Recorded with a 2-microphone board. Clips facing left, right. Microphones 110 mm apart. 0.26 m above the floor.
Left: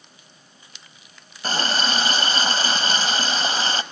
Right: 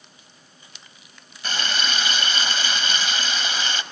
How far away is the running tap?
About 0.7 m.